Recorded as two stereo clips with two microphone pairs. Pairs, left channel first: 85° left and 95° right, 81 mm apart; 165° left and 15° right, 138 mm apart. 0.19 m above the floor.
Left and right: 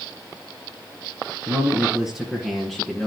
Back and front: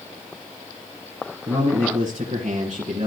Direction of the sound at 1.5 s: 25° right.